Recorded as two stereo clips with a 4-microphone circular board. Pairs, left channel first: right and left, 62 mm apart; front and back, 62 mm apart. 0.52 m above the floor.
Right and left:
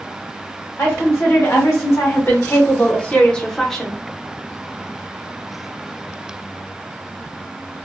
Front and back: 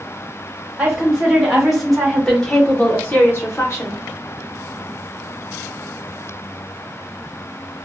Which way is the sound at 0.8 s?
110° right.